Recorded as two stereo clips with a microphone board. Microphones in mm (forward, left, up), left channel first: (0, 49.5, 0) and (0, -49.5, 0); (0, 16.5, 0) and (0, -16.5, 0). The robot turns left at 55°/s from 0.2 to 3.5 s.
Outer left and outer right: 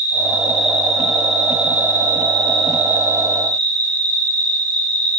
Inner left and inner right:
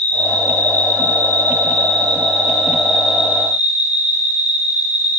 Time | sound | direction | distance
0.0 | an insect | 130° left | 2.5 m